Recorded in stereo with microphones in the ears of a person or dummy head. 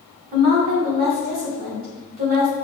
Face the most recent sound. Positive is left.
turn(degrees=-45)  # may be behind; listen again after turning